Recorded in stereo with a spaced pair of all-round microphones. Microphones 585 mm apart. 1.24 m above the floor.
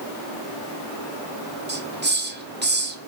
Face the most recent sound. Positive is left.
turn(degrees=-20)  # may be behind; listen again after turning